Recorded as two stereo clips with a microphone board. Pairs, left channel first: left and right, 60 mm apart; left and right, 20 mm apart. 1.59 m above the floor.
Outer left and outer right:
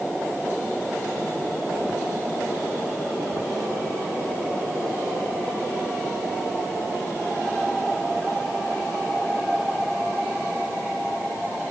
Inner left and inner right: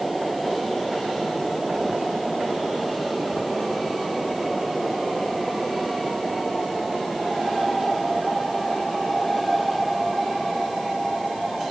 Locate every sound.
Only background noise.